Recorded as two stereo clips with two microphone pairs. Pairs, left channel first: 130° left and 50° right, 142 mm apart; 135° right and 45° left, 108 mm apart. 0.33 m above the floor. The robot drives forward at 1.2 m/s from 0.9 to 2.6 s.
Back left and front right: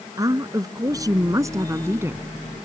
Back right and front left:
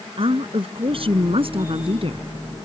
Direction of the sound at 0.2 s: 15° left.